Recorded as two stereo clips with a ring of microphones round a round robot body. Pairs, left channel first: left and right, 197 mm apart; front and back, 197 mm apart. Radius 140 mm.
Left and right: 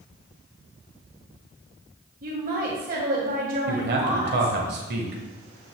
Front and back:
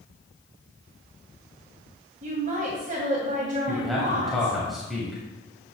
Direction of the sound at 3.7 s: 90° right.